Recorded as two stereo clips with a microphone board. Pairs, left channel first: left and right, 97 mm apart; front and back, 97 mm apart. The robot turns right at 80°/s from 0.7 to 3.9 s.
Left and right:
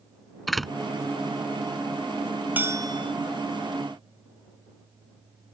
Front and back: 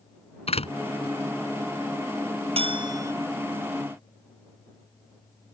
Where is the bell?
165° right; by 3.1 s 120° right.